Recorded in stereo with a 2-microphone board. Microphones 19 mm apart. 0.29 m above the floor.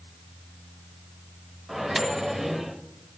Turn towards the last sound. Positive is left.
turn(degrees=-20)  # may be behind; listen again after turning